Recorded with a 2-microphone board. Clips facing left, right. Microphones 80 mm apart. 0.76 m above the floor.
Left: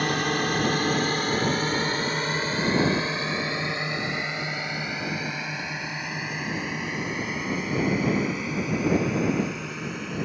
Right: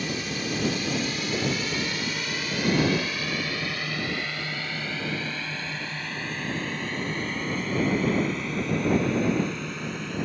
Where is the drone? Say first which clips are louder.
Left 6 dB; 60° left (ahead or behind); by 10.3 s 5° left (ahead or behind).